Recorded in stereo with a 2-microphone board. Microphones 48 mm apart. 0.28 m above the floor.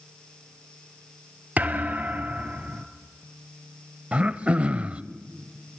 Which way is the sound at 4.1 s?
25° right (ahead or behind).